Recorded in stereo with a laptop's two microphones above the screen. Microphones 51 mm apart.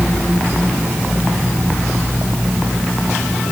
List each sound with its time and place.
Only background noise.